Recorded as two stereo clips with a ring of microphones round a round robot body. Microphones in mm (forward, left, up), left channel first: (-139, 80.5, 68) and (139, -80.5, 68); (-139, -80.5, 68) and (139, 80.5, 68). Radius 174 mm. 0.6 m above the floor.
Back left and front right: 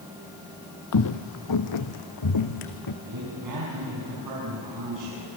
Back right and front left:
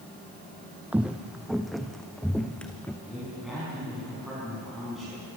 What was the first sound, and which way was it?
Footsteps, 115° left.